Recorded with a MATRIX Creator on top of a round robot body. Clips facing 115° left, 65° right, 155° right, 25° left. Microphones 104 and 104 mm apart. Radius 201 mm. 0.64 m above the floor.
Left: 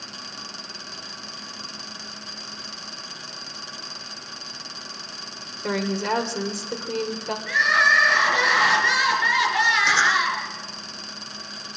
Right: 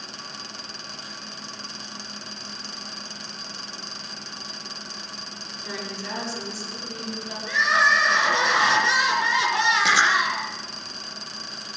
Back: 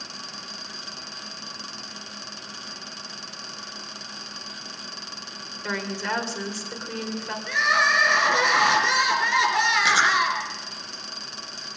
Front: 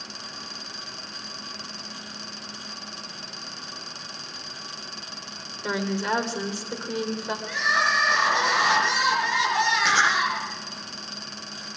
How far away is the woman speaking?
About 2.5 m.